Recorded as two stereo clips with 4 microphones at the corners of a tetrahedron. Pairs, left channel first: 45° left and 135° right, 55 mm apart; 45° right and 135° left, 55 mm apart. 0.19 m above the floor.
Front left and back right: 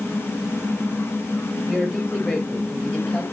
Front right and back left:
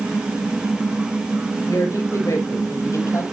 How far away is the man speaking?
About 5.5 m.